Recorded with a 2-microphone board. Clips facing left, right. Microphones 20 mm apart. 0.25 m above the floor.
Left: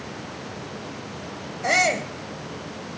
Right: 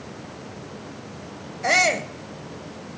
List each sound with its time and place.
1.6 s a shout: 10° right (ahead or behind), 1.0 m